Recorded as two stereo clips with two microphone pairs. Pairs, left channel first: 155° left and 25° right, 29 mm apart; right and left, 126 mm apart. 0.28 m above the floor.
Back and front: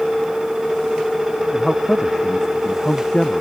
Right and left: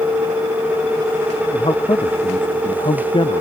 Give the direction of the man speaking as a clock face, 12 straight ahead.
4 o'clock.